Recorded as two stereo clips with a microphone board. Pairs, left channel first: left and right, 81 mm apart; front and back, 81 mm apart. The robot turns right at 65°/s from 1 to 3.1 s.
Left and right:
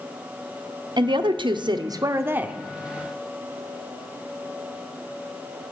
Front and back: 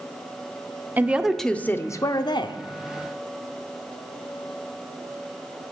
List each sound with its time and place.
1.0 s a woman speaking: 110° right, 0.6 m; by 2.6 s 10° right, 0.6 m